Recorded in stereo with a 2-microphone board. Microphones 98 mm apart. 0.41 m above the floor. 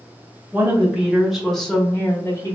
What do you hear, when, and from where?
0.5 s a woman speaking: 20° right (ahead or behind), 1.4 m; by 2.5 s 35° left (ahead or behind), 1.1 m